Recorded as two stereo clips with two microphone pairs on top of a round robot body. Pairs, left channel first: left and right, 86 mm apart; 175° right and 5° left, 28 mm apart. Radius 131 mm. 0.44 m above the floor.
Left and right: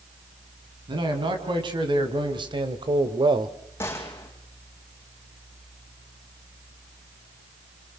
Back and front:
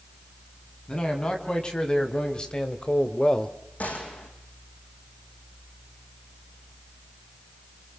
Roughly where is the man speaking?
Behind right.